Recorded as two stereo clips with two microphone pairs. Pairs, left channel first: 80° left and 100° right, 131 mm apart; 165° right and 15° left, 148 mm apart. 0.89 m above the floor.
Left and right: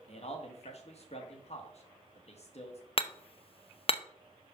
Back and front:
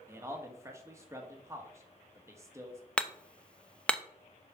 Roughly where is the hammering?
Behind left.